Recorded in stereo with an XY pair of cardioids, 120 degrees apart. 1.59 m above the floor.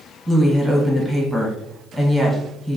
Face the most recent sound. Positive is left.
turn(degrees=-5)